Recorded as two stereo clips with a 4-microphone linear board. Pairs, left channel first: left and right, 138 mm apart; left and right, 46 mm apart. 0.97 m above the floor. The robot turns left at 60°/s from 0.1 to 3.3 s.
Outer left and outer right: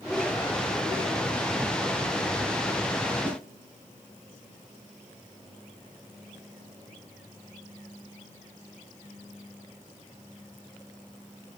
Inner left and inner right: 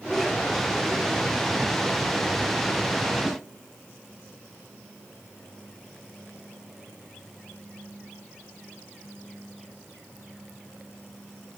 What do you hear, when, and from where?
3.2 s a snare drum: 10° right (ahead or behind), 3.5 m